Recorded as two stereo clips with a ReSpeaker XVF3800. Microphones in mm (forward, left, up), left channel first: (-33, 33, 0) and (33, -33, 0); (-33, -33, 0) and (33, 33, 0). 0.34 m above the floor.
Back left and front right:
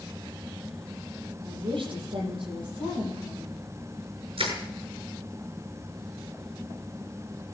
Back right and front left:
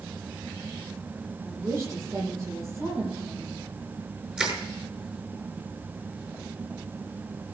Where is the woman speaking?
15° right, 8.5 m.